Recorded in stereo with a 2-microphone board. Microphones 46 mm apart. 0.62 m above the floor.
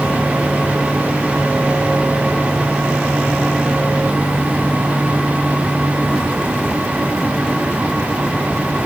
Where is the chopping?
No chopping in this recording.